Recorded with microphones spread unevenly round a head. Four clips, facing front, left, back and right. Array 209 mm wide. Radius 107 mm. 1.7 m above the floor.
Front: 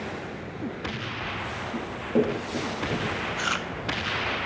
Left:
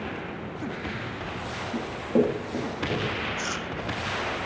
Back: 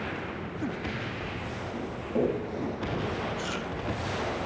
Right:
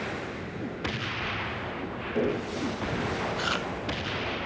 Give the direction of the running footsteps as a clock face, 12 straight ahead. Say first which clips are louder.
Left 8 dB, front 5 dB; 10 o'clock.